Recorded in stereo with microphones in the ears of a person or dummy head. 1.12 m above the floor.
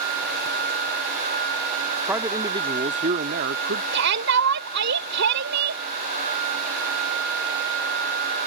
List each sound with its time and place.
2.1 s a man speaking: 10° right (ahead or behind); by 3.8 s 60° right (ahead or behind)
3.9 s a shout: 65° right (ahead or behind)